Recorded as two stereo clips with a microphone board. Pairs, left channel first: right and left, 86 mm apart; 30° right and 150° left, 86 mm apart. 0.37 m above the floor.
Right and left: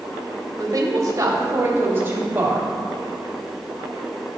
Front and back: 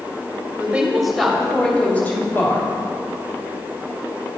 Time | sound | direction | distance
0.6 | a woman speaking | 80° left | 1.3 m